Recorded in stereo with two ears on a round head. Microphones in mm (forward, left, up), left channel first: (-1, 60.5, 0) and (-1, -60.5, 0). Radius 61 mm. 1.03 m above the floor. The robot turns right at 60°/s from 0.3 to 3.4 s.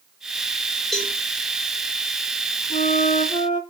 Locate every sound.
0.9 s a cowbell: centre (ahead or behind), 3.5 m; by 1.1 s 15° left (ahead or behind), 3.5 m
2.7 s a flute: 85° left, 1.2 m; by 3.6 s 130° left, 1.2 m